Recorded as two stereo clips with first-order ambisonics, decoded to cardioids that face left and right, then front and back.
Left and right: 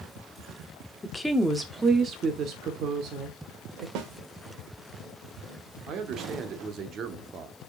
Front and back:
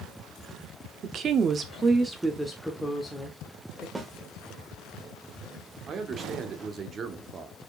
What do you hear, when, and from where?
1.0 s a woman speaking: 165° left, 0.8 m; by 3.9 s 70° right, 1.3 m
4.0 s a snare drum: 100° right, 1.0 m
5.9 s a man speaking: 125° right, 1.0 m